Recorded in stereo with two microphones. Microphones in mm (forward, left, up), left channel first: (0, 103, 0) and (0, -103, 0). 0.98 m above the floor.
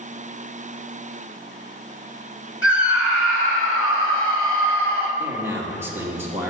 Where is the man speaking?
10° right (ahead or behind), 2 m.